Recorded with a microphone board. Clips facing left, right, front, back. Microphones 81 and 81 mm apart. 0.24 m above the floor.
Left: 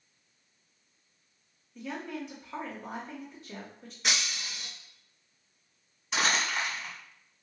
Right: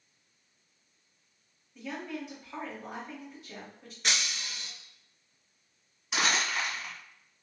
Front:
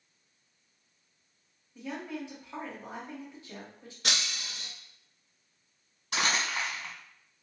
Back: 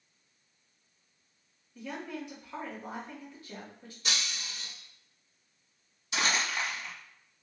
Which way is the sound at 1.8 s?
10° right.